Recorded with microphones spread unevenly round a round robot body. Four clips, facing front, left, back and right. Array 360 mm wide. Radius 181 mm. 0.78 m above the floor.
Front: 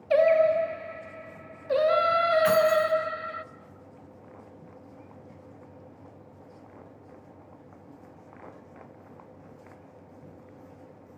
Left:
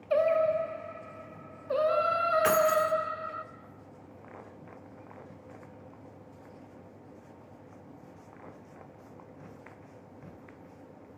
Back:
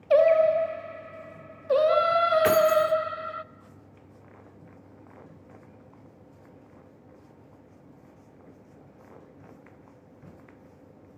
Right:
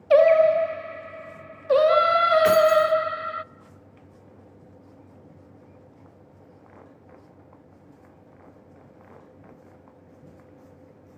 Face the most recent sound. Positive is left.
turn(degrees=180)